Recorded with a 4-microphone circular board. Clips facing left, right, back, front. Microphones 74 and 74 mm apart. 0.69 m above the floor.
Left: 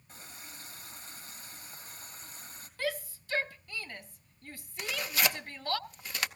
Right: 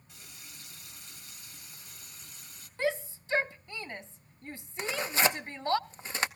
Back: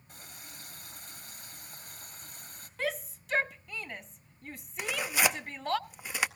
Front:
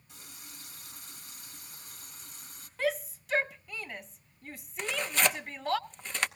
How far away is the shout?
About 0.5 m.